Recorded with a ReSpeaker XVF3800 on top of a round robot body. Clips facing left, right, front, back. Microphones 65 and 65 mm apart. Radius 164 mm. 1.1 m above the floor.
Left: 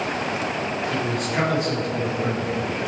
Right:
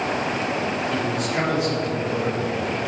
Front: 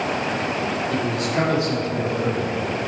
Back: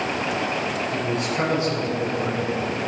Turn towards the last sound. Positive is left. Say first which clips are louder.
# right 1 dB, front 2 dB
turn(degrees=0)